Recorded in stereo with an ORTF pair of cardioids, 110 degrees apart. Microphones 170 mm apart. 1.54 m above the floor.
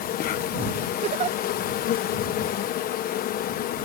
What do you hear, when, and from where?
0.0 s an insect: 60° left
1.0 s a giggle: 40° right